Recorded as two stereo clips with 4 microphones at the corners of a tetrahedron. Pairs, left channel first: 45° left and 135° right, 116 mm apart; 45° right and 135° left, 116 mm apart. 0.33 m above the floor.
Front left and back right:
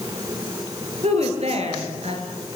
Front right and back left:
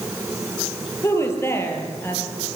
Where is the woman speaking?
110° right, 6.5 m; by 2.2 s 115° right, 6 m.